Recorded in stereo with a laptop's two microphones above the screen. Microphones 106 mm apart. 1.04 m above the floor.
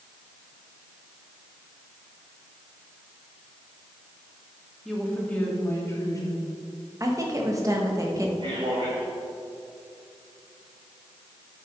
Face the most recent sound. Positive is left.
turn(degrees=-55)  # may be behind; listen again after turning